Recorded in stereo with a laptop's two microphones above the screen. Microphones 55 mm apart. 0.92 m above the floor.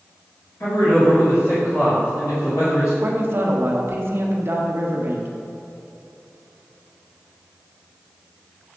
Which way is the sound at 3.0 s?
45° right (ahead or behind).